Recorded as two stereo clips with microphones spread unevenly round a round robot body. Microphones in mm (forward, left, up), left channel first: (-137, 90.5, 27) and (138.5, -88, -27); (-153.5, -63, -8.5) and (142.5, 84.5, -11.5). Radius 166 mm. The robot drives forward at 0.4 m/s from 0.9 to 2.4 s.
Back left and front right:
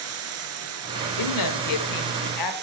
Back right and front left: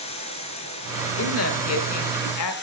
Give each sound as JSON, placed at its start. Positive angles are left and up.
{"t": 0.0, "sound": "running water", "azimuth_deg": -80, "distance_m": 2.5}
{"t": 1.2, "sound": "a woman speaking", "azimuth_deg": 170, "distance_m": 1.6}